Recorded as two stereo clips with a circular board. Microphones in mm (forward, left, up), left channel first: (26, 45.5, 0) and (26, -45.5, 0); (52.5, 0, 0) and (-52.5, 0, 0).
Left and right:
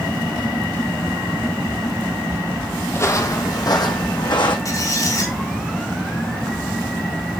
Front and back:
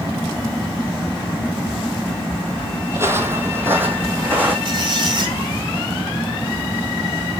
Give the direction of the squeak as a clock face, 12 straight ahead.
7 o'clock.